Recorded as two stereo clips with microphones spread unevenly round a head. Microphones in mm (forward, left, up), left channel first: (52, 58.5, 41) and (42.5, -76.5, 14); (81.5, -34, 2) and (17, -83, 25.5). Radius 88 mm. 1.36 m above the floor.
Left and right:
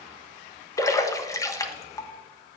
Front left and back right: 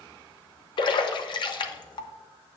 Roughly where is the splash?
Ahead.